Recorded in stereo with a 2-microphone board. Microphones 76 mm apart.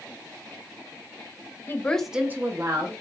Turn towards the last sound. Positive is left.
turn(degrees=-55)  # may be behind; listen again after turning